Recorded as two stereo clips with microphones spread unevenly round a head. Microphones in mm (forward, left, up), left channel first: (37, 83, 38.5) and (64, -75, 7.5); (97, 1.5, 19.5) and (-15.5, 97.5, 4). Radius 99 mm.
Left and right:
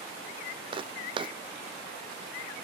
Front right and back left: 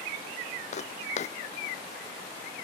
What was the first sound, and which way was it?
Footsteps, 20° right.